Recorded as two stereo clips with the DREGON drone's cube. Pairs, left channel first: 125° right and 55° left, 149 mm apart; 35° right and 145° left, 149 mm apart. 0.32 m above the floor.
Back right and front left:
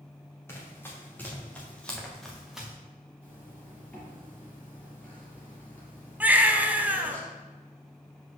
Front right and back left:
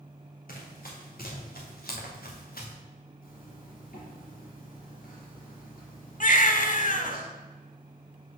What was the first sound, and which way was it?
Running footsteps, 50° right.